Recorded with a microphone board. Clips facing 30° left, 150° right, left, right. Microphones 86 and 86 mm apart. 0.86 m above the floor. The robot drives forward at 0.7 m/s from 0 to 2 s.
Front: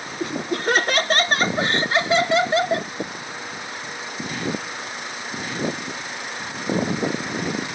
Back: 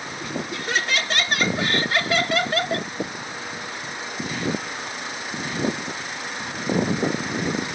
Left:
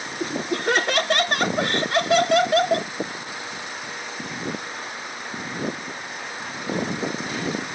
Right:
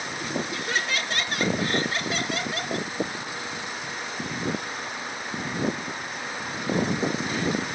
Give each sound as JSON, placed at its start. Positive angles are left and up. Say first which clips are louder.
{"t": 0.2, "sound": "laughter", "louder": "front 7 dB, left 7 dB", "azimuth_deg": 60}